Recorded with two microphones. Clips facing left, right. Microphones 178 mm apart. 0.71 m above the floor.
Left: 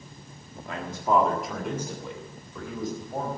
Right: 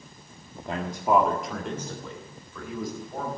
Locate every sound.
0.7 s a man speaking: 30° right (ahead or behind), 1.5 m; by 3.3 s 30° left (ahead or behind), 4 m